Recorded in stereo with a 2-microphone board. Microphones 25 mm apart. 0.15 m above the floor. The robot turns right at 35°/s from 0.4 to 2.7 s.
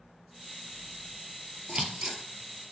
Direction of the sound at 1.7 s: 40° right (ahead or behind).